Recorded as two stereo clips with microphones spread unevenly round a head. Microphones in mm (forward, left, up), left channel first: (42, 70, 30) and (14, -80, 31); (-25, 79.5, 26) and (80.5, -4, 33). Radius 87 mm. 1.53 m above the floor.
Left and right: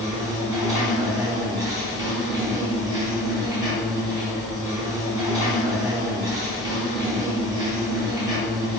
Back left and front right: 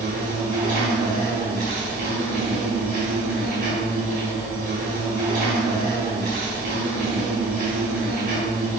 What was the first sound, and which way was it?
An insect, 35° right.